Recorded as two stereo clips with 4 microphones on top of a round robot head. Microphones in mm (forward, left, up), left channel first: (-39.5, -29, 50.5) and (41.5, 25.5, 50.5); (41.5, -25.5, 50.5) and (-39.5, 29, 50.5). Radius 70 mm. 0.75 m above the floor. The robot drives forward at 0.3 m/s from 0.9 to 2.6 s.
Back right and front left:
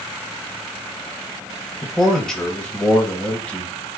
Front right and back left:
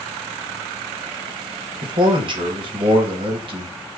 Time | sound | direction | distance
1.8 | a man speaking | 125° left | 0.9 m